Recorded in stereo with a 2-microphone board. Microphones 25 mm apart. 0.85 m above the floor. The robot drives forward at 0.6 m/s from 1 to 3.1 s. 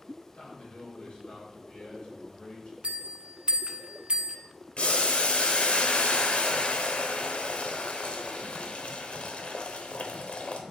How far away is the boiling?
About 0.9 m.